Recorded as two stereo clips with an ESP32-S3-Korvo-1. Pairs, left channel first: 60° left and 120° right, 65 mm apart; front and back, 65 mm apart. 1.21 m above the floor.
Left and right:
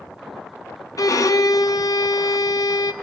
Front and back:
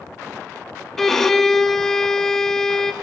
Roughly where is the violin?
Left.